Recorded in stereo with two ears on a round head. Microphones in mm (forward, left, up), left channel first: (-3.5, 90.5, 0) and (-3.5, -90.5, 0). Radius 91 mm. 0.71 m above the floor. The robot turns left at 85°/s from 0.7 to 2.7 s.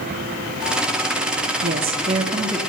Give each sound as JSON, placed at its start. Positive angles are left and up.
{"t": 1.6, "sound": "a woman speaking", "azimuth_deg": -100, "distance_m": 0.9}